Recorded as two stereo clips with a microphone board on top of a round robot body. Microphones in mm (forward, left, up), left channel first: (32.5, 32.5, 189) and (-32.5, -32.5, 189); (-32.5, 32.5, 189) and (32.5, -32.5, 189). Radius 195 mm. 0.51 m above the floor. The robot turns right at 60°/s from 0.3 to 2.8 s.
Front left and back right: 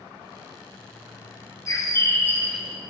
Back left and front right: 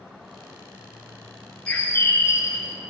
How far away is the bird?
About 1.5 m.